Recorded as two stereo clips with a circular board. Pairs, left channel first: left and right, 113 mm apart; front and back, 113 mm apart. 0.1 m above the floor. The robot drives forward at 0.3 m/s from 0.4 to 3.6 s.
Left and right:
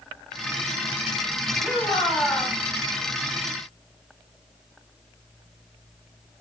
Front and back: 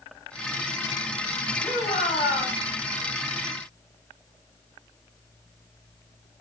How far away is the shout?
About 5.5 m.